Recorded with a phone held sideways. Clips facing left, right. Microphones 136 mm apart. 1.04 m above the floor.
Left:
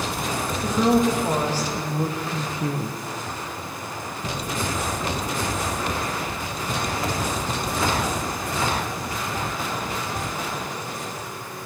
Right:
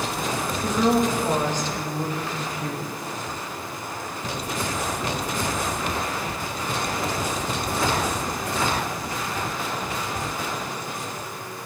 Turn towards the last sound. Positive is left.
turn(degrees=30)  # may be behind; listen again after turning